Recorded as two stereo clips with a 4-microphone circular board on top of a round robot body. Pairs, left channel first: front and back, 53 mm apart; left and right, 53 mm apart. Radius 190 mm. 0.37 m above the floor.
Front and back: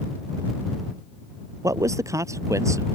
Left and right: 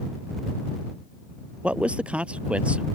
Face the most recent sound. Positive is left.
turn(degrees=-155)